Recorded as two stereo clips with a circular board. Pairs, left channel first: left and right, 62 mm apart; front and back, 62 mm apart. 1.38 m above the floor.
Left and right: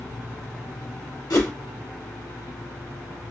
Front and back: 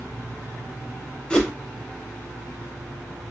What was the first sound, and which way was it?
A whoosh, 75° left.